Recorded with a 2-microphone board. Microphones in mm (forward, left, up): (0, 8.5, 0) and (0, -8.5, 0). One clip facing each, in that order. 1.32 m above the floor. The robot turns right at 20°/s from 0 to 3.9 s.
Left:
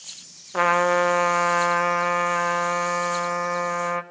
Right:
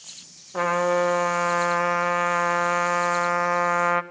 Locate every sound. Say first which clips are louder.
0.5 s a trumpet: left 3 dB; 150° left, 1.4 m; by 4.0 s 145° right, 1.4 m